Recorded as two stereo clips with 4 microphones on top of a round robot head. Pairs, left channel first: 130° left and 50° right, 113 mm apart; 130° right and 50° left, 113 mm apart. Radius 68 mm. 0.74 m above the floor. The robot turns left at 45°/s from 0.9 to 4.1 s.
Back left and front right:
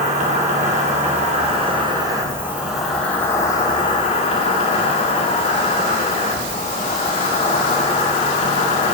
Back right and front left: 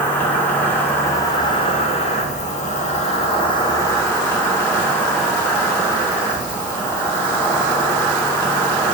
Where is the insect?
55° right, 2.5 m; by 8.9 s 160° left, 2.5 m.